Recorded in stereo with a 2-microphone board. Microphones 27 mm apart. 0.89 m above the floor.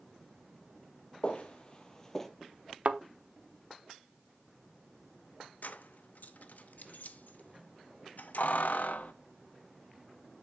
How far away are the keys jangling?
About 0.6 m.